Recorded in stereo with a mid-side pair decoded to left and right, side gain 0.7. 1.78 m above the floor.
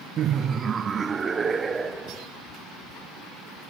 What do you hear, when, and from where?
0.2 s laughter: 45° right, 0.6 m; by 2.3 s 20° right, 1.9 m